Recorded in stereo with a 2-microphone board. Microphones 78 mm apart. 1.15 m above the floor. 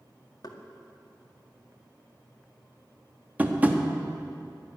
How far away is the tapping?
About 1.3 m.